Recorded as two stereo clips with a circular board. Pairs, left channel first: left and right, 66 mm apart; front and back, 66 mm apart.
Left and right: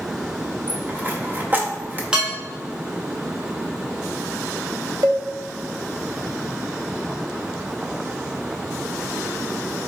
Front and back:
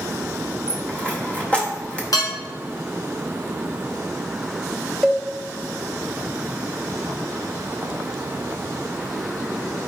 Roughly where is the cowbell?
Right.